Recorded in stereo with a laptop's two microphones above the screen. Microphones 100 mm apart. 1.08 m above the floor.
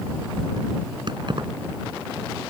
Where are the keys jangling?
50° right (ahead or behind).